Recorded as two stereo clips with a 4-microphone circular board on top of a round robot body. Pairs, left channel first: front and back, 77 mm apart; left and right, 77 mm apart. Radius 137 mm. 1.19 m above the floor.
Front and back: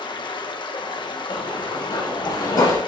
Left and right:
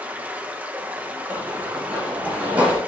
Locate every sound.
0.0 s running water: 20° right, 1.0 m
1.3 s running footsteps: 25° right, 5 m; by 2.8 s 20° right, 4 m